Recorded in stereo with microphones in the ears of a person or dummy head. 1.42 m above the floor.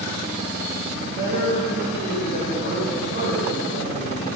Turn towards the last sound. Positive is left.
turn(degrees=-75)  # may be behind; listen again after turning